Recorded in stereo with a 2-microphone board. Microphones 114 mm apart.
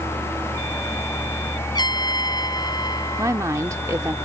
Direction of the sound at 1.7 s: 35° left (ahead or behind).